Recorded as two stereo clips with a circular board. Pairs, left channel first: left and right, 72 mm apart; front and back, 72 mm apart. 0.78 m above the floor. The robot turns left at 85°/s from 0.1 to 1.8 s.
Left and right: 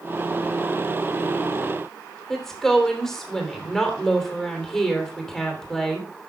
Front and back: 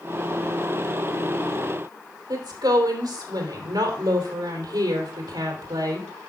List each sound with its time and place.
2.3 s a woman speaking: 175° left, 3 m